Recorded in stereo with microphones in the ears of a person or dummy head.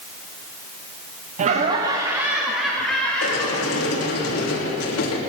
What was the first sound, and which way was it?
Laughter, 40° right (ahead or behind).